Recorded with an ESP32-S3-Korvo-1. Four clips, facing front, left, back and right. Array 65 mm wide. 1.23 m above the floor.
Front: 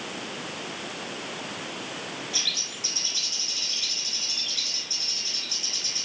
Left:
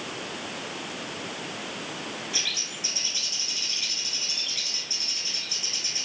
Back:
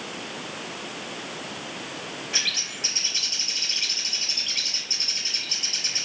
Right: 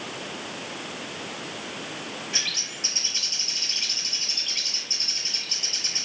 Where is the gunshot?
No gunshot in this recording.